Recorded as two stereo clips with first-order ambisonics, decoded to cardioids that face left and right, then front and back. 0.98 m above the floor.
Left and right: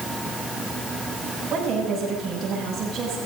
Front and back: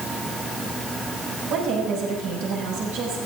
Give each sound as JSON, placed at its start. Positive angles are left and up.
{"t": 1.5, "sound": "a woman speaking", "azimuth_deg": -165, "distance_m": 6.0}